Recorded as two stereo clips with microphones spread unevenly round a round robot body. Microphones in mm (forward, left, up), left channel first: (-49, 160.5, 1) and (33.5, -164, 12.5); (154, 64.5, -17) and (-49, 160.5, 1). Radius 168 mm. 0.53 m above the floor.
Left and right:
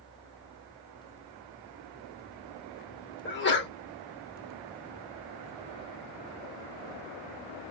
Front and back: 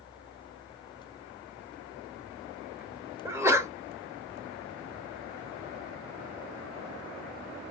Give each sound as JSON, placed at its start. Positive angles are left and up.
{"t": 3.2, "sound": "a sneeze", "azimuth_deg": 75, "distance_m": 0.9}